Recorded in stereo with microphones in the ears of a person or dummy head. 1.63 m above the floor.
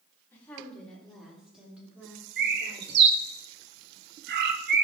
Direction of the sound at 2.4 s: 60° right (ahead or behind).